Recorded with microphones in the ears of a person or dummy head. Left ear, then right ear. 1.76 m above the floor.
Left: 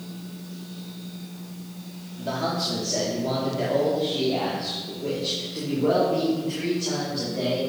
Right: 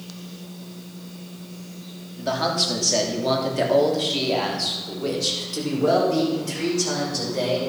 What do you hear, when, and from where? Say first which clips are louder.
2.2 s a man speaking: right 4 dB; 35° right (ahead or behind), 3.5 m; by 7.6 s 75° right (ahead or behind), 7 m